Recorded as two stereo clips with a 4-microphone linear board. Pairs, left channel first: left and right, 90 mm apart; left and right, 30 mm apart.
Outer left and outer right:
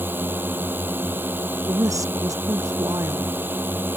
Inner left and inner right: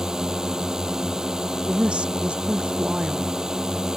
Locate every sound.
0.0 s a drone: 20° right (ahead or behind)
1.7 s a woman speaking: 40° right (ahead or behind)